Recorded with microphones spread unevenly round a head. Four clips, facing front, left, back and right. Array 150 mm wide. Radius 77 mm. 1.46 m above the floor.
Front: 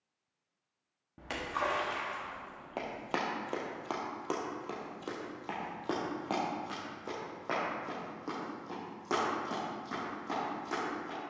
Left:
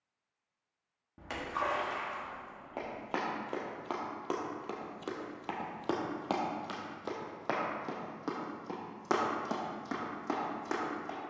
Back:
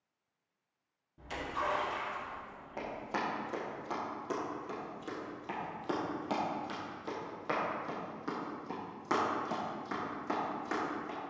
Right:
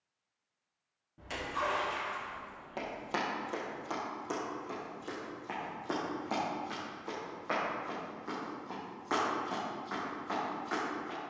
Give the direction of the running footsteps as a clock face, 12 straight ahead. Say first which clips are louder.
Right 1 dB, front 1 dB; 12 o'clock.